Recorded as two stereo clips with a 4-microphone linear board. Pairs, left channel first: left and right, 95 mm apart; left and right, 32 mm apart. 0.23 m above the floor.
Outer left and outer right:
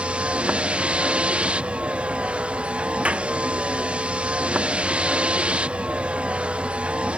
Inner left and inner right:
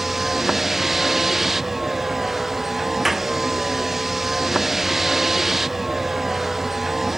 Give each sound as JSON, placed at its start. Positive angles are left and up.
{"t": 0.0, "sound": "a vehicle", "side_deg": -10}
{"t": 3.0, "sound": "a clap", "side_deg": -10}